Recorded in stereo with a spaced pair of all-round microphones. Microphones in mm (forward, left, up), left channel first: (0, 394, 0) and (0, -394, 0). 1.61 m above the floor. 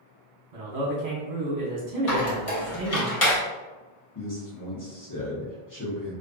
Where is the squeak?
45° left (ahead or behind), 0.9 m.